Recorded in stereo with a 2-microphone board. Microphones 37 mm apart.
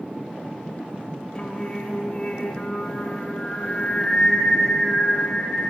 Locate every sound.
1.4 s singing: 25° left (ahead or behind), 3 m